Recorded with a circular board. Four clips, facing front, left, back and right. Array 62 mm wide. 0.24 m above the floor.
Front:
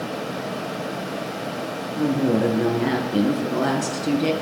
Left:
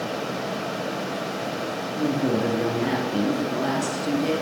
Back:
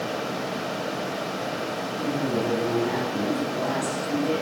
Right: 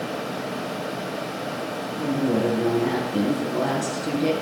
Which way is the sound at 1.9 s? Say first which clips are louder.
Even, front 7 dB; 25° left.